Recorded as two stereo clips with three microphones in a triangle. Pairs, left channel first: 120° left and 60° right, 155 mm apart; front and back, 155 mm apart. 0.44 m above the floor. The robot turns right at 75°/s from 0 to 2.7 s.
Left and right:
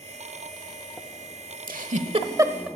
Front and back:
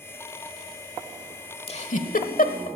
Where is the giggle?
50° right, 1.0 m; by 2.7 s 25° left, 1.0 m.